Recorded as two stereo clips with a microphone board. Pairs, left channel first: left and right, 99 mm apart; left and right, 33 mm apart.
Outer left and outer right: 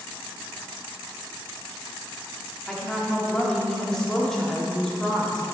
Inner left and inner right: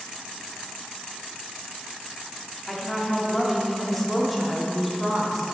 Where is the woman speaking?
5° left (ahead or behind), 2.0 m.